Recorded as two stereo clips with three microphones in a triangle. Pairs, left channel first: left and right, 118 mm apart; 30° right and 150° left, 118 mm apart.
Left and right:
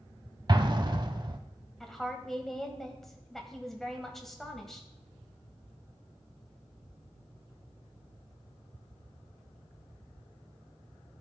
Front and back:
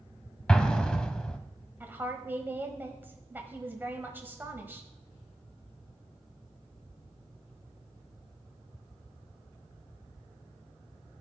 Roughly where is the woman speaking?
Behind.